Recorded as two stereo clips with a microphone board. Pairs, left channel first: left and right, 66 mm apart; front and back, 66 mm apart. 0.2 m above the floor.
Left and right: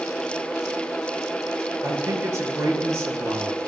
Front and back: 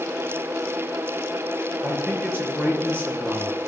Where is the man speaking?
130° right, 3.5 m.